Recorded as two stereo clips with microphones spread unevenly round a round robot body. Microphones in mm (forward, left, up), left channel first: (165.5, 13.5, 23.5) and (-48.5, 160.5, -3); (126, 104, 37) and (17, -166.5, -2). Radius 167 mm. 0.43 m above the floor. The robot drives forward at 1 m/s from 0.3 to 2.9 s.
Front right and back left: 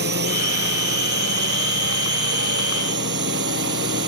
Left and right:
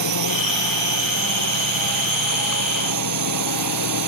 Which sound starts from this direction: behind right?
A drone, at 0.0 s.